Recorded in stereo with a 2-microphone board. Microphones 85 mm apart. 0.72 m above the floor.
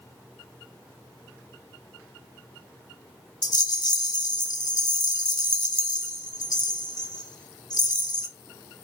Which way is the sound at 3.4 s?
55° left (ahead or behind).